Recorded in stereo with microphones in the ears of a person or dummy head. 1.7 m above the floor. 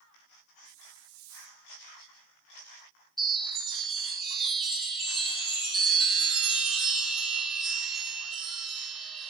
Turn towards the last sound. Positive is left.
turn(degrees=0)  # may be behind; listen again after turning